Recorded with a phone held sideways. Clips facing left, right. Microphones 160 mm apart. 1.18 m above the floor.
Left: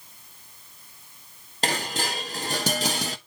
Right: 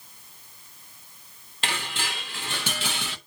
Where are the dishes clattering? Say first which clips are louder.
Left 5 dB; 40° left (ahead or behind), 0.8 m.